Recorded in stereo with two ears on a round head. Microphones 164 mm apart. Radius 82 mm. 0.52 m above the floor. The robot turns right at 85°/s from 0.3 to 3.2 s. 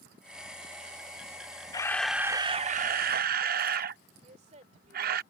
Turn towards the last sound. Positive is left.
turn(degrees=-40)  # may be behind; listen again after turning